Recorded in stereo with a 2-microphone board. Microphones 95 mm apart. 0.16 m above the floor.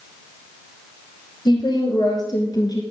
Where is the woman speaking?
50° left (ahead or behind), 3.5 m; by 2.8 s 45° left (ahead or behind), 2.5 m.